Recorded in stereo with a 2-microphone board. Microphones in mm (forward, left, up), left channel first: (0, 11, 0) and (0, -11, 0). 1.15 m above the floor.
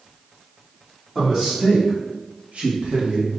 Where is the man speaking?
Centre (ahead or behind), 1.5 m; by 3.3 s 70° right (ahead or behind), 1.3 m.